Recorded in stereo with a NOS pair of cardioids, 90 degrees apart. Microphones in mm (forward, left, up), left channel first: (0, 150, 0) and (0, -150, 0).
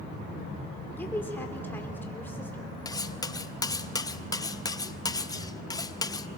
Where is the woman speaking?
5° left, 3 m.